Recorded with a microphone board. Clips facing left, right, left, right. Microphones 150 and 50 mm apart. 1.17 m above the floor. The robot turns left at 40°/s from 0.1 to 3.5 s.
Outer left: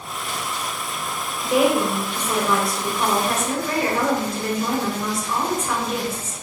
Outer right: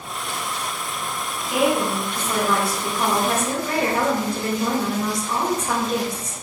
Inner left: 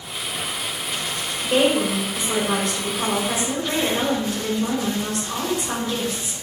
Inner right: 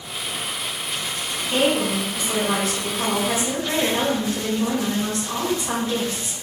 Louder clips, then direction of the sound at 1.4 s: Outer left 2 dB, inner left 2 dB; 45° left.